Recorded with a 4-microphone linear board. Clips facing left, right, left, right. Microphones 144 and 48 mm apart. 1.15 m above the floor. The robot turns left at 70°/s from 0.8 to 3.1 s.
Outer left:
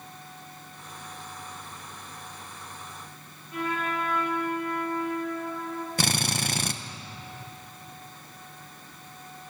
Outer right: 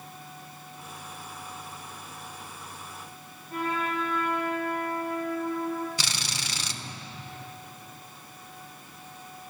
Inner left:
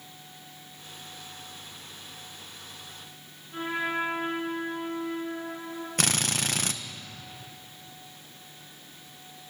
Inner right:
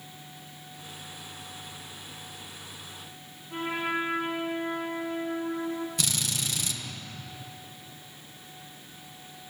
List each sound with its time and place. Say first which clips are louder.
3.5 s a trumpet: even, even; 45° right (ahead or behind), 8.5 m
6.0 s a drill: outer left 8 dB, inner left 4 dB; 55° left (ahead or behind), 1.1 m